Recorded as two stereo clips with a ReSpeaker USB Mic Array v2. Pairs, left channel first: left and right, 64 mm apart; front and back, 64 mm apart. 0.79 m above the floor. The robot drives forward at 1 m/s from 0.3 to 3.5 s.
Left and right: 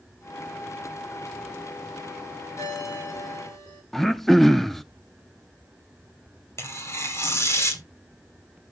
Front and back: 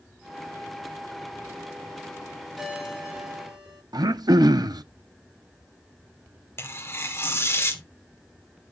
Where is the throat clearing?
175° left, 0.7 m.